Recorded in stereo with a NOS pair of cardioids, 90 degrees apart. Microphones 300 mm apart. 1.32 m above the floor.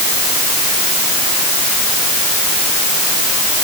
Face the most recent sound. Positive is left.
No sound to turn to.